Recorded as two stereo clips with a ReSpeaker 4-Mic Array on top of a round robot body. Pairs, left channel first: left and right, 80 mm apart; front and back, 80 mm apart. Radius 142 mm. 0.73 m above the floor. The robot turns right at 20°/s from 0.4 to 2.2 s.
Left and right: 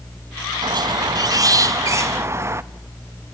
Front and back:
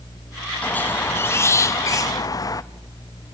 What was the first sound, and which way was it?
A squeak, 70° right.